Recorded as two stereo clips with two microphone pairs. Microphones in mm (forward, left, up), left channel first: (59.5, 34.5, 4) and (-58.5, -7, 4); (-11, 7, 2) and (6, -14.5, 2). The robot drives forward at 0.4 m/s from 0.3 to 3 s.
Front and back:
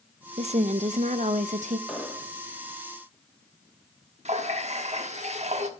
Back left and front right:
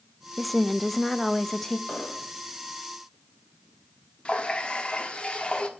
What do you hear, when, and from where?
0.4 s a woman speaking: 140° right, 0.7 m; by 1.8 s 160° right, 1.1 m
1.9 s an explosion: 110° left, 1.9 m; by 2.3 s 115° left, 2.0 m
4.2 s a running tap: 175° left, 1.4 m